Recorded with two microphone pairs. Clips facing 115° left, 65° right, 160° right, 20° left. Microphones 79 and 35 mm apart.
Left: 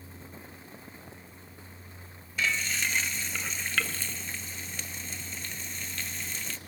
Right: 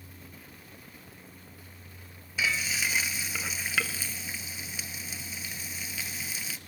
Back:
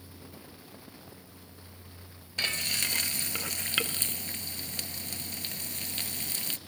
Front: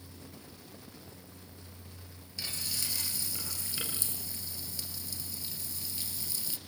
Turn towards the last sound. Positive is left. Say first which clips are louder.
# even, back 8 dB
turn(degrees=-145)